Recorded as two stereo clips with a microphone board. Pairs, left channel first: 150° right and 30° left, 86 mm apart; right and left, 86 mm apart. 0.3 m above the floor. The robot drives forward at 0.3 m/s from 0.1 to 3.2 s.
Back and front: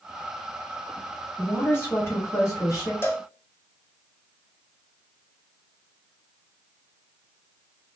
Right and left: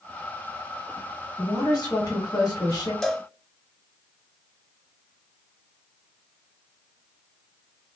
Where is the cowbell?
175° right, 0.6 m.